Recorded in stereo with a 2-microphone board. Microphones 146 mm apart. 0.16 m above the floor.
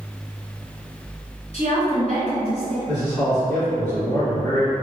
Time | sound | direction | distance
1.5 | a woman speaking | 45° left (ahead or behind) | 1.7 m
2.9 | a man speaking | 5° left (ahead or behind) | 1.9 m